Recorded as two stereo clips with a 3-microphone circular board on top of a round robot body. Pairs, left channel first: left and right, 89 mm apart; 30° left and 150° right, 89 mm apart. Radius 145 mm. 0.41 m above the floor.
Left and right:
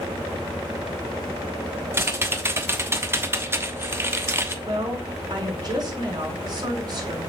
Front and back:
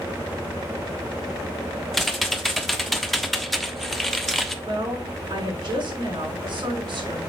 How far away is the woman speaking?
About 5.5 m.